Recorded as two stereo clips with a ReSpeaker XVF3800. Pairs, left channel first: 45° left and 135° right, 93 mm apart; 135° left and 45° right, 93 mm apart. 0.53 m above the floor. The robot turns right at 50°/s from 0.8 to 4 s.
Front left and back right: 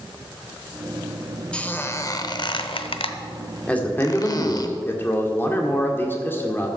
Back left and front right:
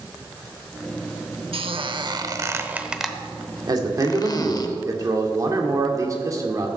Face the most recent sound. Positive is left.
turn(degrees=-10)